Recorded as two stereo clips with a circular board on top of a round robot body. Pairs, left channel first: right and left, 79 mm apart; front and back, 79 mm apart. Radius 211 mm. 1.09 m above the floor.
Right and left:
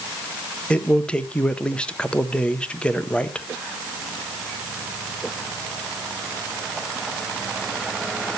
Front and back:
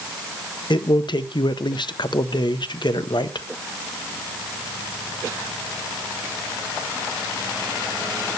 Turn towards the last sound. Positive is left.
turn(degrees=-15)